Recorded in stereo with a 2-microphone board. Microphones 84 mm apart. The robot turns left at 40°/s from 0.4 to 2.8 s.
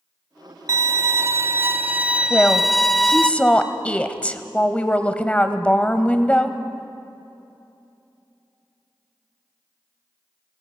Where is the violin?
100° right, 0.7 m; by 3.3 s 175° left, 0.7 m.